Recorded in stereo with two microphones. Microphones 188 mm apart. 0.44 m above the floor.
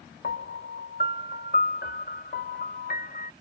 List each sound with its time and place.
0.2 s a piano: 55° left (ahead or behind)